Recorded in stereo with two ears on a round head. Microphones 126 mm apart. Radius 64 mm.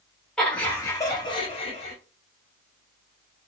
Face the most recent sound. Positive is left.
turn(degrees=50)  # may be behind; listen again after turning